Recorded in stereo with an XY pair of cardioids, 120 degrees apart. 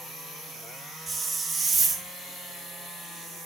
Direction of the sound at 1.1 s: 25° right.